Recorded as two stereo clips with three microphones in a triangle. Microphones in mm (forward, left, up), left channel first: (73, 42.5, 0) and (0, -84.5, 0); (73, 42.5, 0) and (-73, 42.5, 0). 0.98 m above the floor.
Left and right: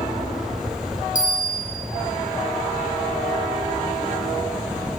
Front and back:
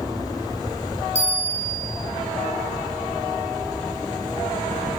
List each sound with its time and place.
1.1 s a bell: 40° left, 7.5 m